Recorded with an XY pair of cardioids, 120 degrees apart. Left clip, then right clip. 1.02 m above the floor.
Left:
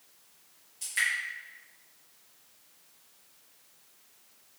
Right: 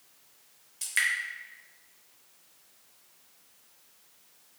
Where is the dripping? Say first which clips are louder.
Right 2 dB; 50° right, 1.1 m.